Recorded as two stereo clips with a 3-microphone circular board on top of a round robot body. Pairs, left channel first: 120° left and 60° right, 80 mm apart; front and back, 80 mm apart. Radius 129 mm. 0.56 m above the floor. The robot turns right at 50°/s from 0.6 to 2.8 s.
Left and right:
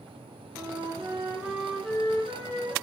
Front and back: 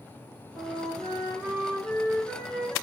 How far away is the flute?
About 5 m.